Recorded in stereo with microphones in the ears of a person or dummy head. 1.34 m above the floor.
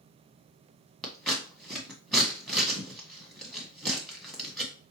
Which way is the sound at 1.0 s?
5° left (ahead or behind).